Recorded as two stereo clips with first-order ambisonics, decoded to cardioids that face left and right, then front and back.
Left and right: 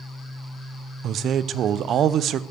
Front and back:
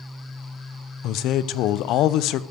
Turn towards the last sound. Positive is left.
turn(degrees=-35)